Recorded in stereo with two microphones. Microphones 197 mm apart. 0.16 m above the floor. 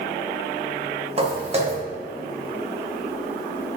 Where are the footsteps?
30° right (ahead or behind), 3 m.